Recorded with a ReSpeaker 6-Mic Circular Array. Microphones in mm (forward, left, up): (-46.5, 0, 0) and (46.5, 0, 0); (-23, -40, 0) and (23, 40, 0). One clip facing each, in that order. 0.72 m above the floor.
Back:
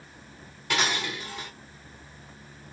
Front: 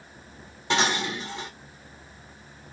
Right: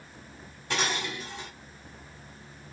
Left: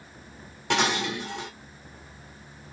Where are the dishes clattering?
65° left, 1.4 m.